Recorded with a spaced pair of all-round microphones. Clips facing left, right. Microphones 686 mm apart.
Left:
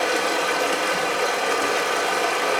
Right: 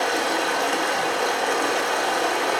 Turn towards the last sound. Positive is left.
turn(degrees=55)  # may be behind; listen again after turning